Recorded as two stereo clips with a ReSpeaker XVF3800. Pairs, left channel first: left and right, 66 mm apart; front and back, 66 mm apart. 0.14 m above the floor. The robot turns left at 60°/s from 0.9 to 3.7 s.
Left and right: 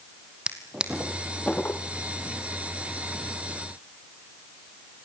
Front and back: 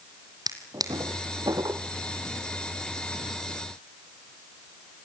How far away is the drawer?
About 1.7 m.